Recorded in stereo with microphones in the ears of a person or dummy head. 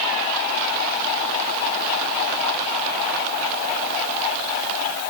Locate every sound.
Only background noise.